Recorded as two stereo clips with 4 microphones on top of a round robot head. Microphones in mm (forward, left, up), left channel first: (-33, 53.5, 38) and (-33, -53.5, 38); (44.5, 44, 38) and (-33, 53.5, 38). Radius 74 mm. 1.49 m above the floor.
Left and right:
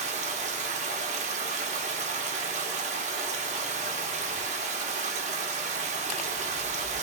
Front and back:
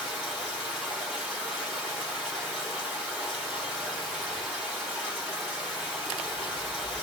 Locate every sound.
0.0 s running water: 100° right, 1.1 m